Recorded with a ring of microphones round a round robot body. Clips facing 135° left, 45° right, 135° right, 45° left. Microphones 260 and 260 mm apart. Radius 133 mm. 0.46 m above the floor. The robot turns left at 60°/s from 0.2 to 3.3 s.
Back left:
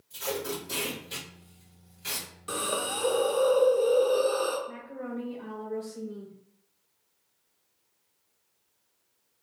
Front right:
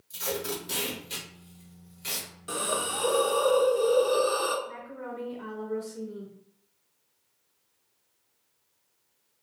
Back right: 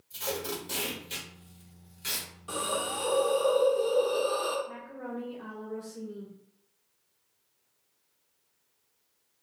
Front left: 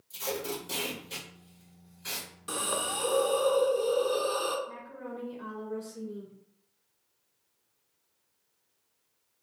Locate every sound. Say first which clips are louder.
0.1 s tape being pulled: even, even; 10° right, 1.6 m; by 2.3 s 135° right, 1.6 m
2.5 s a hiss: even, back right 2 dB; 55° left, 0.7 m; by 4.6 s 5° left, 0.7 m
4.7 s a woman speaking: back left 2 dB, back right 2 dB; 15° right, 1.1 m